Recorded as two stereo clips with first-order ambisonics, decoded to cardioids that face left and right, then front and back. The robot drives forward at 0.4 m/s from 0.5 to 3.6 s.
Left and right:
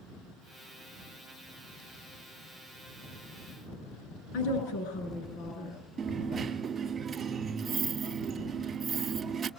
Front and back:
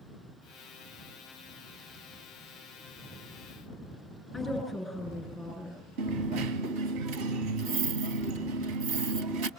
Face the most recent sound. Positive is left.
turn(degrees=-160)